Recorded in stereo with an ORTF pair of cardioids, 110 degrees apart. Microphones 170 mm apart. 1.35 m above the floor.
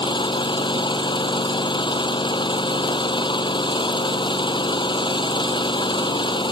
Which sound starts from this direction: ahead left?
An engine running, at 0.0 s.